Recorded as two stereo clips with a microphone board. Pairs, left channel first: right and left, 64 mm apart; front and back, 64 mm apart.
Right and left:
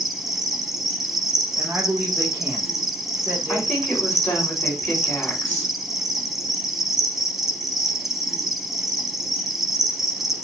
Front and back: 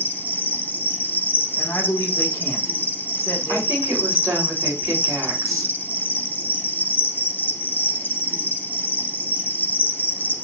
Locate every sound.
0.0 s an insect: 15° left, 0.7 m
1.6 s a woman speaking: 30° left, 1.8 m
3.5 s a woman speaking: 145° right, 4 m